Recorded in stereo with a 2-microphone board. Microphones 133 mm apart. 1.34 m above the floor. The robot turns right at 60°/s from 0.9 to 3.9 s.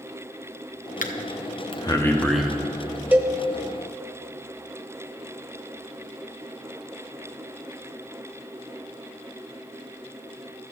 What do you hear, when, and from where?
1.0 s breathing: 70° left (ahead or behind), 0.8 m; by 2.5 s 5° right (ahead or behind), 0.8 m
3.1 s a cowbell: 15° right (ahead or behind), 0.8 m; by 3.4 s centre (ahead or behind), 0.8 m